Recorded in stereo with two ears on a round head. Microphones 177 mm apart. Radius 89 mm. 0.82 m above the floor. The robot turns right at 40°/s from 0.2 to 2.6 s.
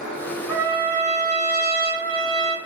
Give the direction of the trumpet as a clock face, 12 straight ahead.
6 o'clock.